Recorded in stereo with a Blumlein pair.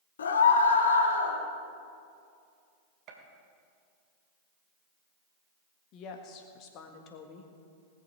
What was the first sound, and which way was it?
A scream, 65° left.